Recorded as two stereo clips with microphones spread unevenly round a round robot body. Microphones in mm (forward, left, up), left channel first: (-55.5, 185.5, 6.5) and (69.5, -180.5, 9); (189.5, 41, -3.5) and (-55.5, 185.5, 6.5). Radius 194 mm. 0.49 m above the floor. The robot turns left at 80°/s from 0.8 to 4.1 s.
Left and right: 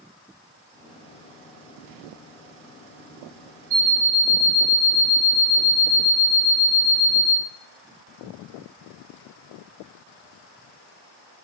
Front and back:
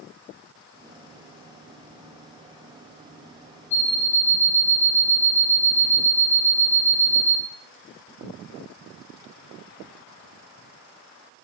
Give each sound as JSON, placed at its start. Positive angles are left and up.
{"t": 3.7, "sound": "an alarm clock", "azimuth_deg": -125, "distance_m": 0.5}